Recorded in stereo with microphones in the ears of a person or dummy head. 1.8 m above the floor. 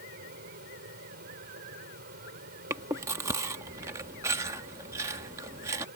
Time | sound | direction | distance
0.0 | a fan | 50° right (ahead or behind) | ?
2.7 | chewing | 15° right (ahead or behind) | ?